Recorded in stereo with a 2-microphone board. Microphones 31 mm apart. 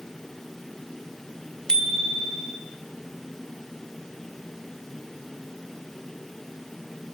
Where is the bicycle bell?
25° left (ahead or behind), 3 m.